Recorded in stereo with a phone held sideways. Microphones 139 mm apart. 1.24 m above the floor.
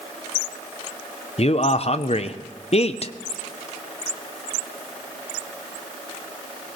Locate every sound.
1.4 s a man speaking: 50° left (ahead or behind), 0.7 m